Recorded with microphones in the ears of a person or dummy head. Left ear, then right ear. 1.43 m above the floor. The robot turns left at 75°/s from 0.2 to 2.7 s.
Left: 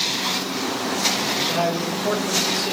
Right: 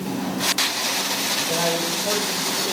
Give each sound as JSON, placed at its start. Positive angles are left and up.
{"t": 1.5, "sound": "a man speaking", "azimuth_deg": 155, "distance_m": 5.0}